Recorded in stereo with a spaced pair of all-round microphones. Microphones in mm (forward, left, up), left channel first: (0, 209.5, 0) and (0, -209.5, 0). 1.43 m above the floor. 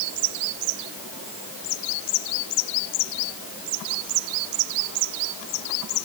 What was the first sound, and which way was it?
Only background noise.